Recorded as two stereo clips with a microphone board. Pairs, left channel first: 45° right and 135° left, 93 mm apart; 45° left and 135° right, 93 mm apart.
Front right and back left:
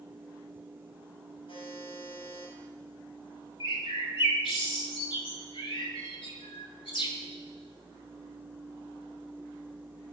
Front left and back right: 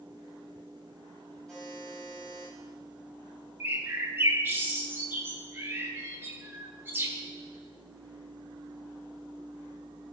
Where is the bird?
70° right, 1.5 m.